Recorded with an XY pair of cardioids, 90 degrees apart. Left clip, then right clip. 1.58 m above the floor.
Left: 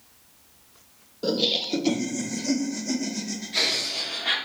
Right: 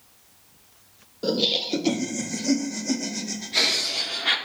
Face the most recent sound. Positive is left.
turn(degrees=-25)